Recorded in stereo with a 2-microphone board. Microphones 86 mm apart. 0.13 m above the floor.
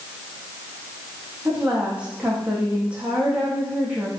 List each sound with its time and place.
1.4 s a woman speaking: 15° right (ahead or behind), 7 m